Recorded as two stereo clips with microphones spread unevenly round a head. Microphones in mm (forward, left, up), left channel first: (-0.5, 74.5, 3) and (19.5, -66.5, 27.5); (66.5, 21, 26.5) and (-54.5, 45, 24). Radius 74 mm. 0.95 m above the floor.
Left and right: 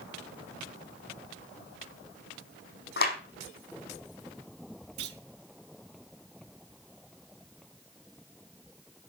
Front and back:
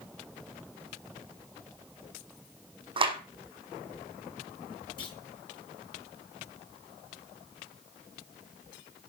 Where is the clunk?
70° right, 2.5 m.